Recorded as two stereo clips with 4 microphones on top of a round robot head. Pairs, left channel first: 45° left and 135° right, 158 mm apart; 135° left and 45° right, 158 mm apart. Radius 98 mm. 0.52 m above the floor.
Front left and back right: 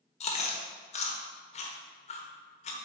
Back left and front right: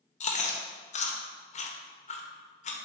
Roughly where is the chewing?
Left.